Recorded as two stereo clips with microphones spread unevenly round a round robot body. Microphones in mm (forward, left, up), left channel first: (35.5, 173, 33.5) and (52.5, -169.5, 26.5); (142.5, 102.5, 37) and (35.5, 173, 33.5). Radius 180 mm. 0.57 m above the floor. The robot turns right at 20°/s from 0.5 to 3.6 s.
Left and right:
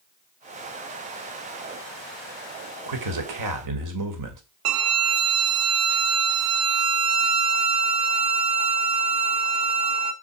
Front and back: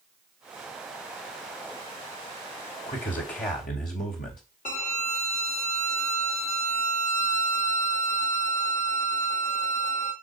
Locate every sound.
2.9 s a man speaking: 70° right, 2.5 m; by 4.4 s 55° right, 2.5 m
4.7 s a violin: 70° right, 1.0 m